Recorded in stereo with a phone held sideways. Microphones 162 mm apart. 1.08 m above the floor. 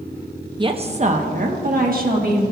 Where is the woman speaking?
30° right (ahead or behind), 0.6 m; by 2.4 s 60° right (ahead or behind), 1.7 m.